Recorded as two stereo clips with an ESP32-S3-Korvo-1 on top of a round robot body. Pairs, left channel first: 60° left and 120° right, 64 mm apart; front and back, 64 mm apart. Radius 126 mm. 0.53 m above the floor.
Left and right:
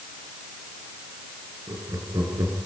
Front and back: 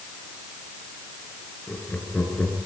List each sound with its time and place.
1.7 s laughter: 70° right, 8.5 m